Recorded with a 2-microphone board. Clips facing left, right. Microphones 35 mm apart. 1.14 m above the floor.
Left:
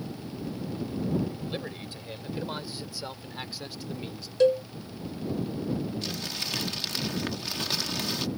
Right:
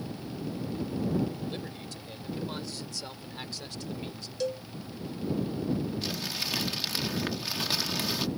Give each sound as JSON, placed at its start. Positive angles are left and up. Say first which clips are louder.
{"t": 1.5, "sound": "a man speaking", "louder": "left 3 dB", "side_deg": 30}
{"t": 4.4, "sound": "a cowbell", "louder": "left 11 dB", "side_deg": 45}
{"t": 6.0, "sound": "crumpling", "louder": "even", "side_deg": -5}